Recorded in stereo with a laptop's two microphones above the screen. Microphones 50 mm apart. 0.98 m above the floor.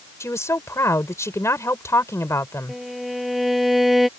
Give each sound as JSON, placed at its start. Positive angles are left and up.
{"t": 0.2, "sound": "a woman speaking", "side_deg": 80}
{"t": 2.7, "sound": "a violin", "side_deg": 0}